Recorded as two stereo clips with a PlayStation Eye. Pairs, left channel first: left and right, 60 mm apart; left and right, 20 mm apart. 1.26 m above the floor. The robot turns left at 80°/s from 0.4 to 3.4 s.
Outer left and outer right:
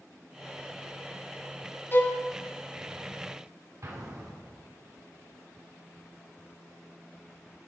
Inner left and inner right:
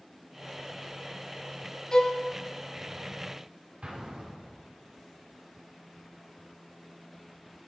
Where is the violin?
35° left (ahead or behind), 0.6 m; by 2.2 s 10° left (ahead or behind), 0.6 m.